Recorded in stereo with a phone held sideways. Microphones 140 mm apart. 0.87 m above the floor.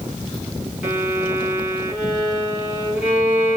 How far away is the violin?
About 3 m.